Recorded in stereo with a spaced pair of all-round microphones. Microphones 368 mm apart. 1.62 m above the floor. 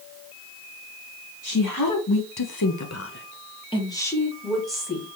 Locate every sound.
1.4 s a woman speaking: 55° left (ahead or behind), 1.2 m; by 5.1 s 5° right (ahead or behind), 2.5 m